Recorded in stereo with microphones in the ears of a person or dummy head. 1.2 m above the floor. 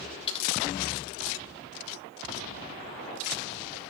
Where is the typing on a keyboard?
30° left (ahead or behind), 3.5 m.